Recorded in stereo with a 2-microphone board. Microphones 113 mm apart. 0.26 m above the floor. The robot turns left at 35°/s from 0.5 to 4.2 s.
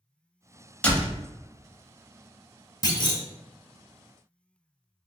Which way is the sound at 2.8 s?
35° left (ahead or behind).